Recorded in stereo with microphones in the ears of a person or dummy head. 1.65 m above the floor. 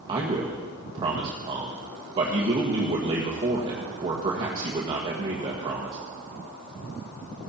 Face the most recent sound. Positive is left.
turn(degrees=-25)  # may be behind; listen again after turning